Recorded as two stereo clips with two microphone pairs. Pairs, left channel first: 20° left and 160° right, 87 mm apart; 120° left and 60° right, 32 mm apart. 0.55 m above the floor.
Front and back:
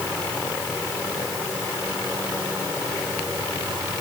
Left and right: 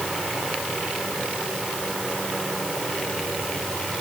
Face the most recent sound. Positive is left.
No sound to turn to.